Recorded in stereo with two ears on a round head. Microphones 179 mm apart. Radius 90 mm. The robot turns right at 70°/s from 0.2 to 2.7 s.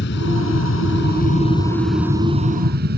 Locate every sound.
0.0 s an aircraft: 60° left; by 3.0 s 125° right